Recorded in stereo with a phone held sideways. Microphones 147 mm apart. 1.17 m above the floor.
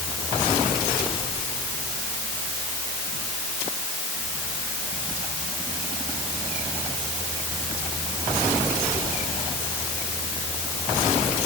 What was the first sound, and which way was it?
Only background noise.